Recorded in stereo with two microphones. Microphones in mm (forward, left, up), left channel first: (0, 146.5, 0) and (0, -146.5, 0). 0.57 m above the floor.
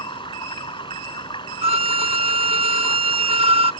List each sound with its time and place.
0.0 s running water: 15° left (ahead or behind)
1.6 s a violin: 20° right (ahead or behind)